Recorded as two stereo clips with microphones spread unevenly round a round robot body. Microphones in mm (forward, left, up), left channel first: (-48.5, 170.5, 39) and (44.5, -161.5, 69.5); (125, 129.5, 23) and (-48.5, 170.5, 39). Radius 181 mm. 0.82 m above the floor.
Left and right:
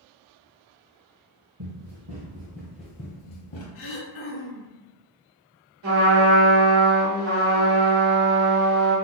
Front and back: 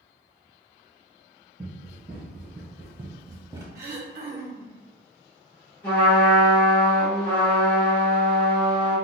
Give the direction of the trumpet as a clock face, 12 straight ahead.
3 o'clock.